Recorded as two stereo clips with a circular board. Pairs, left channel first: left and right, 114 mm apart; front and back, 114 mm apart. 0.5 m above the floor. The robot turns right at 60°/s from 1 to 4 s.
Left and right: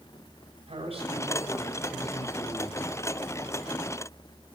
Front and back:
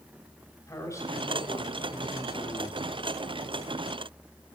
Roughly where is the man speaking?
Ahead right.